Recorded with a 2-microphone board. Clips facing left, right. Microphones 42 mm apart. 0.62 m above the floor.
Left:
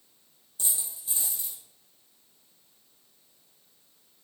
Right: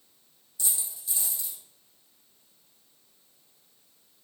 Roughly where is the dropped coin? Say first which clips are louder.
Even; left.